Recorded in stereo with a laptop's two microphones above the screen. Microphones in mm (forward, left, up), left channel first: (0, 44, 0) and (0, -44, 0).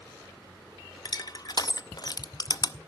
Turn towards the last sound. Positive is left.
turn(degrees=50)  # may be behind; listen again after turning